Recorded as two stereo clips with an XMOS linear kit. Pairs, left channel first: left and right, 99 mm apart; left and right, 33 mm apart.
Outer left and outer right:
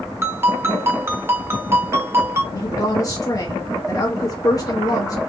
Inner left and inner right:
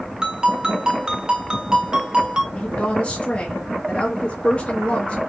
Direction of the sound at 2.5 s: 30° left (ahead or behind).